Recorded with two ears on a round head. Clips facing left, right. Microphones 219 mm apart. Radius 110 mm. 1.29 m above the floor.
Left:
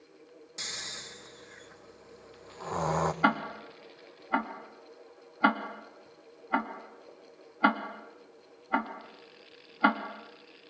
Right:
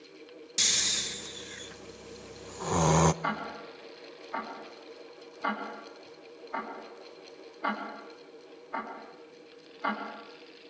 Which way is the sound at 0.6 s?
45° right (ahead or behind).